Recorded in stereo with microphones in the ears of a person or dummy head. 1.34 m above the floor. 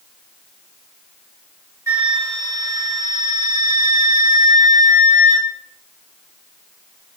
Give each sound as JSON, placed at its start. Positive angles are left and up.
{"t": 1.9, "sound": "a flute", "side_deg": -15, "distance_m": 3.5}